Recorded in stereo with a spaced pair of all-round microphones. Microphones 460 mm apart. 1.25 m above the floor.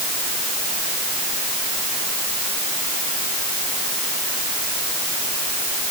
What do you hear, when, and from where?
Only background noise.